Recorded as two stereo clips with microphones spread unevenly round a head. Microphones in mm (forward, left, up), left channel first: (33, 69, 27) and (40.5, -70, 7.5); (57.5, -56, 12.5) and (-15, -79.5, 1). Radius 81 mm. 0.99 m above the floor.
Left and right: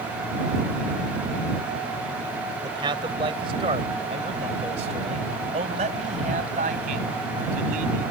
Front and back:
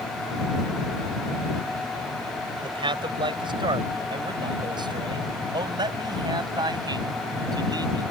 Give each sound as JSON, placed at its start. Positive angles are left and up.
{"t": 2.6, "sound": "a man speaking", "azimuth_deg": -155}